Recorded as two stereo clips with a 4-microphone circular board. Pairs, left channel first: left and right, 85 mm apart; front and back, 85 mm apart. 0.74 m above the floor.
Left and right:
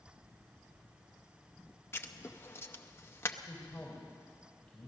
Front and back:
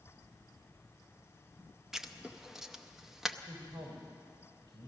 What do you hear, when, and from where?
1.9 s writing: 100° left, 0.6 m
3.5 s a man speaking: 170° left, 3 m